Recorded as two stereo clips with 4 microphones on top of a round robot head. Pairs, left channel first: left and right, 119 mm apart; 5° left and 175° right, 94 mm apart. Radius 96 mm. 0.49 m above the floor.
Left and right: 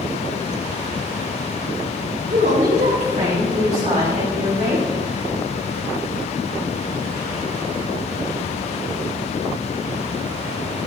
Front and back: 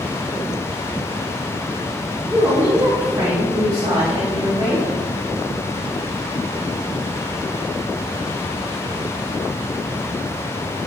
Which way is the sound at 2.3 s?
105° right.